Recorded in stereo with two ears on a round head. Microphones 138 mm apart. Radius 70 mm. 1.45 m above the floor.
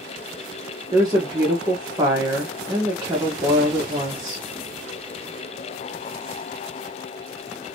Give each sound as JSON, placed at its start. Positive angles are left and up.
{"t": 0.9, "sound": "a woman speaking", "side_deg": -25, "distance_m": 1.1}